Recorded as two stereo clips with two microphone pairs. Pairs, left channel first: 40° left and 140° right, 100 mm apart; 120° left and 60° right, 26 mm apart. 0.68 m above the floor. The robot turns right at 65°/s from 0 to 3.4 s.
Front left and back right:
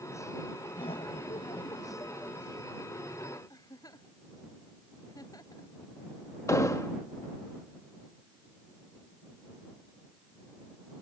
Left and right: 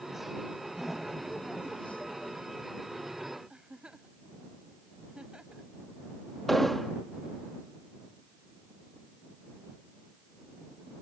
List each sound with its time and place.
0.8 s laughter: 15° left; by 2.4 s 125° left
3.5 s a giggle: 10° right
6.5 s an explosion: 40° left